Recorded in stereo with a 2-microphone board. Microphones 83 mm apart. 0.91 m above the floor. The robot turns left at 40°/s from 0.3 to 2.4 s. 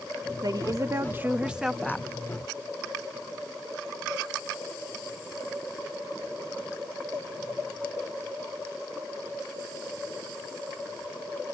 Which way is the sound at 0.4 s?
125° right.